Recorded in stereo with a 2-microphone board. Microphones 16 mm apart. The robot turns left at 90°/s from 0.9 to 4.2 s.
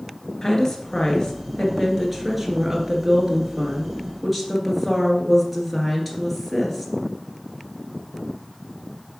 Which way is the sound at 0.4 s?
120° left.